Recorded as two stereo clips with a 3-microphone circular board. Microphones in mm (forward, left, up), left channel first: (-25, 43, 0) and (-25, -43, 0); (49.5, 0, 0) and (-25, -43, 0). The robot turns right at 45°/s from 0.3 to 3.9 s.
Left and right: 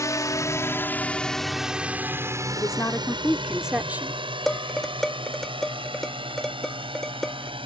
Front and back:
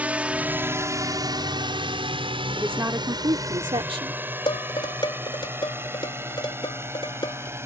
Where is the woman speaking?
135° left; by 4.2 s 165° right.